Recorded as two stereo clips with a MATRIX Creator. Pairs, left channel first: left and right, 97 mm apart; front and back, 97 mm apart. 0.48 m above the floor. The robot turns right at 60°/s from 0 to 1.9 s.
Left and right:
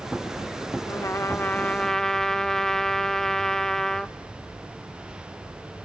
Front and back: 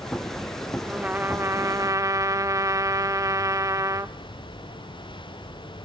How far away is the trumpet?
About 0.6 m.